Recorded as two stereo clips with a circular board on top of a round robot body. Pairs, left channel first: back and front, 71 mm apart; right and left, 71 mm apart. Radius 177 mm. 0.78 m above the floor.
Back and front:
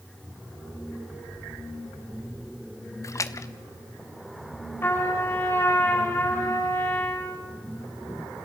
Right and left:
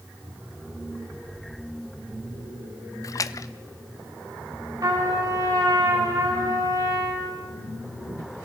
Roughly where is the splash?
Behind right.